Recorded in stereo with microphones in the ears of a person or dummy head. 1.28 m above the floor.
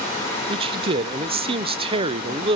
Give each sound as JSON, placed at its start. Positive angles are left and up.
{"t": 0.5, "sound": "a man speaking", "side_deg": -30, "distance_m": 0.5}